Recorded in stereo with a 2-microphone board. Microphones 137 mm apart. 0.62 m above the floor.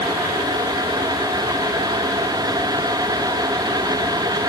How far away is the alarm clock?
No alarm clock in this recording.